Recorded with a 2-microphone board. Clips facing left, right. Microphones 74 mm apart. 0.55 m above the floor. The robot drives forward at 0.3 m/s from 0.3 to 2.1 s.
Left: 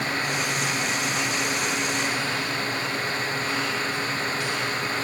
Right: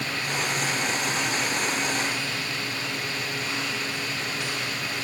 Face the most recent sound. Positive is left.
No sound to turn to.